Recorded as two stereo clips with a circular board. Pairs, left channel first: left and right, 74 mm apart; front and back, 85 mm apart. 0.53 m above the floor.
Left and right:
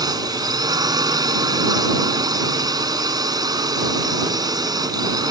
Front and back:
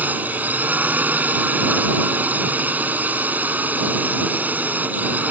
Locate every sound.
0.0 s a drone: 110° right